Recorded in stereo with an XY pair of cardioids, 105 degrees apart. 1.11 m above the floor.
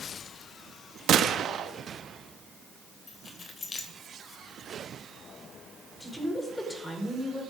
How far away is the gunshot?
About 1.2 m.